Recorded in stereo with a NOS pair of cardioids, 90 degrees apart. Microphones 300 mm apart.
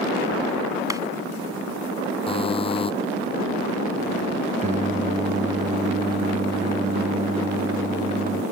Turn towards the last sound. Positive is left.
turn(degrees=-25)